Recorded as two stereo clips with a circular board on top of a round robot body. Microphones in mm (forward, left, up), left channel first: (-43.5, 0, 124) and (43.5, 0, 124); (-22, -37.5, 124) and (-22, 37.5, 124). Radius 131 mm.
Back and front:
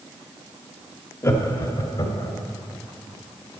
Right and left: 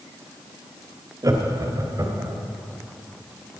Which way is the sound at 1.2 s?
125° left.